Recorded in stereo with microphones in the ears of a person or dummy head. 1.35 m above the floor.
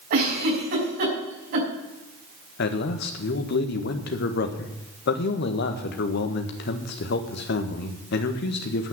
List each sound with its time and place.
0.1 s a giggle: 55° right (ahead or behind), 5 m
2.6 s a man speaking: 60° left (ahead or behind), 1.5 m